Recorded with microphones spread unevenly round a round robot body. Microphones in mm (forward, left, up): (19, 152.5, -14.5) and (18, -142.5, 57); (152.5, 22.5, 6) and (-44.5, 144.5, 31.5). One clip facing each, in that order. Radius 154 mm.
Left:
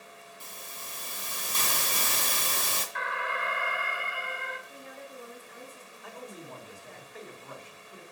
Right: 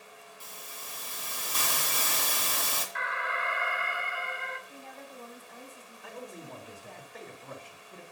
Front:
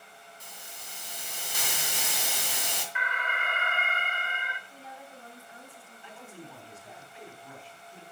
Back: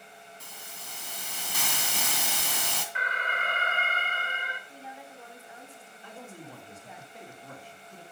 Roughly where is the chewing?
No chewing in this recording.